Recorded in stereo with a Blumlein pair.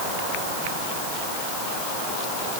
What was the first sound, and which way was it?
Only background noise.